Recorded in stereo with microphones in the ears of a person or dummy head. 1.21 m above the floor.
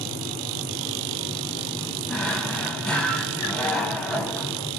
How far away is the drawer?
About 0.9 m.